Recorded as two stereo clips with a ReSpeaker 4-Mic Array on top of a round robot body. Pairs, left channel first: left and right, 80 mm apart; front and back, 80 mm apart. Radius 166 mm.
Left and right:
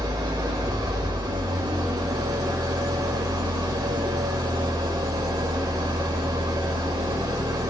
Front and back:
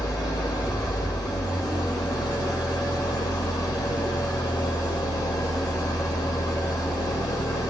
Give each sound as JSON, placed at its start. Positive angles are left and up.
{"t": 0.0, "sound": "an engine running", "azimuth_deg": -45, "distance_m": 2.0}